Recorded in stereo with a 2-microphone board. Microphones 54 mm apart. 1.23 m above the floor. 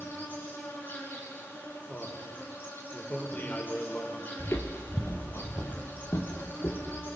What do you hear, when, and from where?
0.0 s an insect: 35° left (ahead or behind), 6 m
1.9 s a man speaking: 35° left (ahead or behind), 4 m
4.4 s footsteps: 45° left (ahead or behind), 1.7 m; by 7.0 s 40° left (ahead or behind), 4 m